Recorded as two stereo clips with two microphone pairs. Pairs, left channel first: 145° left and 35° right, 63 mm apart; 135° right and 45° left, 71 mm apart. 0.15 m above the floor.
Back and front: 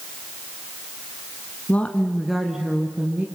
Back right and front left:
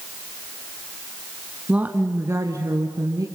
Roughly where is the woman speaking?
Left.